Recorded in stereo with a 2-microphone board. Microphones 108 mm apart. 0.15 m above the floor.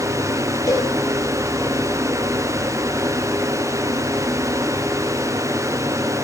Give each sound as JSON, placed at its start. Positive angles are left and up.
{"t": 0.7, "sound": "a cowbell", "side_deg": 30, "distance_m": 2.5}